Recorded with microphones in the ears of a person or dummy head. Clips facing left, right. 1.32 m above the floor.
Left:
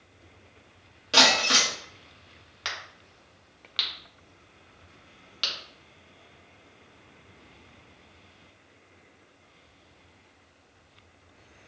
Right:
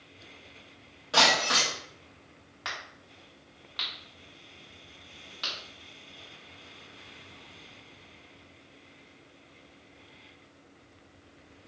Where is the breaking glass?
30° left (ahead or behind), 1.5 m.